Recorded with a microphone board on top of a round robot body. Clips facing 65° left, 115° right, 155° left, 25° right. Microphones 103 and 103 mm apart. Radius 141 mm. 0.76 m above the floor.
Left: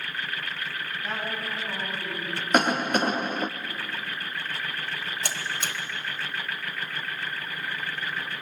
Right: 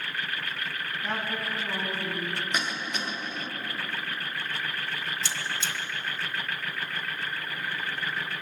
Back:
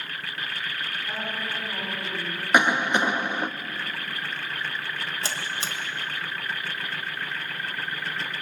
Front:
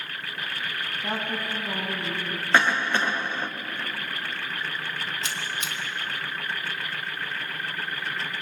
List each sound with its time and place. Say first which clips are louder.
1.0 s a woman speaking: right 1 dB, front 5 dB; 25° right, 6 m
2.5 s a cough: left 10 dB, back 2 dB; 85° left, 0.8 m
5.2 s a buzzer: left 1 dB, back 1 dB; 100° left, 1.1 m